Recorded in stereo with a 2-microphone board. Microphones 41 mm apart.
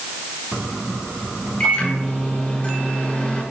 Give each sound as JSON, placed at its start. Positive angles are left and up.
{"t": 1.6, "sound": "a microwave", "side_deg": 35, "distance_m": 5.5}